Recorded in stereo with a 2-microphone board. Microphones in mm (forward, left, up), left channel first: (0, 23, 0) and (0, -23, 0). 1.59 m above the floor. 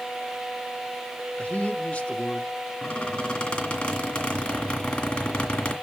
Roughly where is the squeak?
Centre.